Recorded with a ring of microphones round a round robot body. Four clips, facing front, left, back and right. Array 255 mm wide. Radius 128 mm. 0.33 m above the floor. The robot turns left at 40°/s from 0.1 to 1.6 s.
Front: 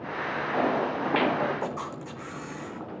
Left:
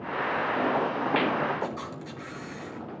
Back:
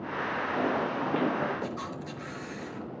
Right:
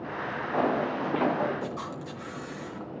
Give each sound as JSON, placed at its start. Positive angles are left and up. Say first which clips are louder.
{"t": 1.6, "sound": "a camera shutter", "louder": "left 1 dB, front 3 dB", "azimuth_deg": 15, "distance_m": 2.5}